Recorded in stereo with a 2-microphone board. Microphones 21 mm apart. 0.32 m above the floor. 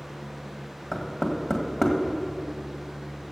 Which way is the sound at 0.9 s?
30° left (ahead or behind).